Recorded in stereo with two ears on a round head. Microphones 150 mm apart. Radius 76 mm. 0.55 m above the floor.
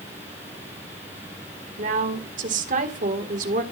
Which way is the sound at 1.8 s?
50° right (ahead or behind).